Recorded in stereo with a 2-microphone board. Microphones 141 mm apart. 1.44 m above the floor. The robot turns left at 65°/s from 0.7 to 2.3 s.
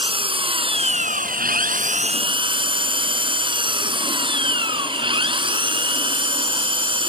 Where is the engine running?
40° right; by 7.1 s 145° right.